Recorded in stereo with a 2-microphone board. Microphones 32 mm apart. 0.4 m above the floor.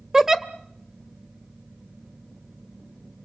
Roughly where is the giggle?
Centre.